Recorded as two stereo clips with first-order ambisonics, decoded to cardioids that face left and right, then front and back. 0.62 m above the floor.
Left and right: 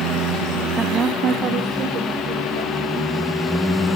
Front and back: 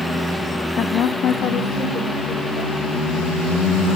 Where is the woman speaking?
15° right, 0.9 m; by 3.1 s 60° right, 3.5 m.